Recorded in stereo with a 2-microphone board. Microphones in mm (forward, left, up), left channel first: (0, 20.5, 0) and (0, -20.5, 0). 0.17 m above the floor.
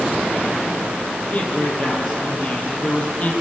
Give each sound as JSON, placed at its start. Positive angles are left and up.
{"t": 1.3, "sound": "a man speaking", "side_deg": 40, "distance_m": 3.5}